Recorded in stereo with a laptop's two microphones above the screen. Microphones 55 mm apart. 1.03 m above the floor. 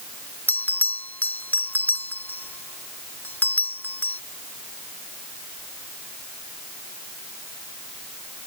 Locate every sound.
0.5 s a bell: 35° left (ahead or behind)